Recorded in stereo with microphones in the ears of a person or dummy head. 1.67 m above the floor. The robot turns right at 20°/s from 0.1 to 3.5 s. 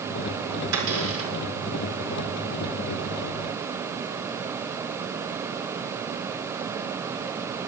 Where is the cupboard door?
70° right (ahead or behind), 4.5 m; by 1.3 s 80° right, 4.5 m.